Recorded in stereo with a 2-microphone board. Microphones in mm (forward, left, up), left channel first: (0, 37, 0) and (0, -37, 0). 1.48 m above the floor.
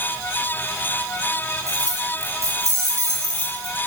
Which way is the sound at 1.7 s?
50° right (ahead or behind).